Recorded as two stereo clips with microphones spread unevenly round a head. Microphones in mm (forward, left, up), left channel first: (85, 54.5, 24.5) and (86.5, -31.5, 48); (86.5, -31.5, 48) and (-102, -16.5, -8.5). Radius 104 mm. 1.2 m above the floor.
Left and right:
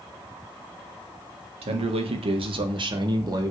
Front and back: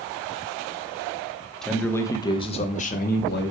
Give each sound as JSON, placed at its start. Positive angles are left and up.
{"t": 1.6, "sound": "a man speaking", "azimuth_deg": -95, "distance_m": 1.7}